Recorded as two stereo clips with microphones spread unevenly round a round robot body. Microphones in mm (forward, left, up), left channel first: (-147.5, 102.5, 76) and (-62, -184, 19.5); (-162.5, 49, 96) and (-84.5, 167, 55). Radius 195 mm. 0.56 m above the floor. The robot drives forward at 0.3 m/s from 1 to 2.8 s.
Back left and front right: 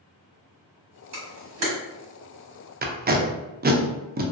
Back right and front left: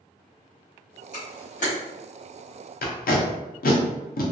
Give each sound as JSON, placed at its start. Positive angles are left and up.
{"t": 1.1, "sound": "a camera shutter", "azimuth_deg": -70, "distance_m": 1.4}
{"t": 2.8, "sound": "tape being pulled", "azimuth_deg": -125, "distance_m": 0.6}